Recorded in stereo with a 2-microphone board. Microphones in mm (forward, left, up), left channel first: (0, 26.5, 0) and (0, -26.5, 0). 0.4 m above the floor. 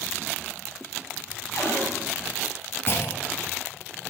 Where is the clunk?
50° left (ahead or behind), 1.0 m.